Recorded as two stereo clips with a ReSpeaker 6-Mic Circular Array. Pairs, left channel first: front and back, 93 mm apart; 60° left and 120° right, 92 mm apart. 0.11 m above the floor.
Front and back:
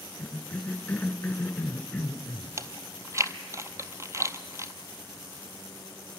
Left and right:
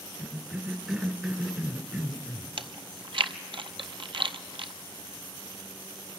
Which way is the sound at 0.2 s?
55° right.